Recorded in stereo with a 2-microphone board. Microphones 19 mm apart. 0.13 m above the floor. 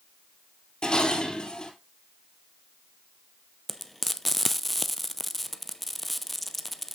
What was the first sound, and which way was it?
Dishes clattering, 50° left (ahead or behind).